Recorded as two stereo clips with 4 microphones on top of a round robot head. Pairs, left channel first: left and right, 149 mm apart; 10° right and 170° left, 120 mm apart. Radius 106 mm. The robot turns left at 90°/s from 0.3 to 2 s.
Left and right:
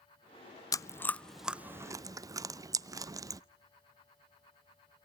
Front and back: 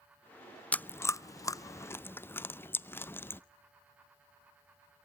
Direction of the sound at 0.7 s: 55° left.